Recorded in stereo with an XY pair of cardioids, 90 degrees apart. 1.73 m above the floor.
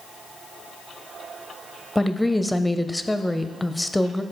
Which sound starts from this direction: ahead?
A woman speaking, at 1.9 s.